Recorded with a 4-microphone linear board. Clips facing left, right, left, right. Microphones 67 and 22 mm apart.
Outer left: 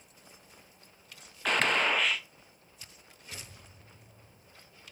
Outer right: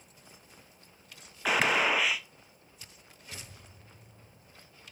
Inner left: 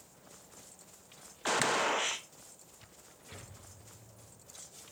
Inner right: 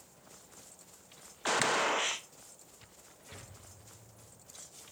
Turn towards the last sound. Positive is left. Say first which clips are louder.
# outer right 1 dB, even
turn(degrees=-5)  # may be behind; listen again after turning